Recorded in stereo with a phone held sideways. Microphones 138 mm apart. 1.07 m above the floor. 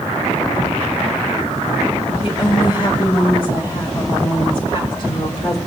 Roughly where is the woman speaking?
Left.